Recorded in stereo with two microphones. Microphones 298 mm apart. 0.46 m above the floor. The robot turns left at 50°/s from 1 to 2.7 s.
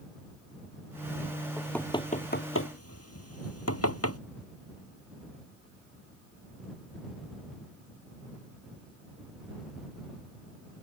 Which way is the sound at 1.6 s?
5° right (ahead or behind).